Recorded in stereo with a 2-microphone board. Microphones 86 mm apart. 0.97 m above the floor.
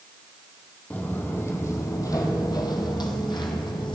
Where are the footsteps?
20° left (ahead or behind), 1.6 m; by 3.9 s 60° left (ahead or behind), 1.9 m.